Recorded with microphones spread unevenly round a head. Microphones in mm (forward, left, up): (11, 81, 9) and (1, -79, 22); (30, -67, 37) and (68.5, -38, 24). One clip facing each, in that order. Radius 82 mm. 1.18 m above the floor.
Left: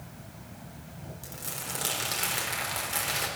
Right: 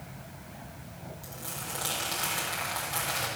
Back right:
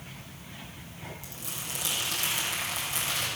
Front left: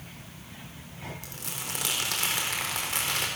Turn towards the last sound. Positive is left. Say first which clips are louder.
# even, front left 2 dB
turn(degrees=25)